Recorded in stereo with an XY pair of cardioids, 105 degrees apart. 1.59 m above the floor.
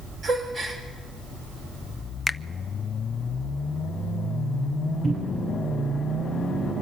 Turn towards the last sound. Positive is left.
turn(degrees=-60)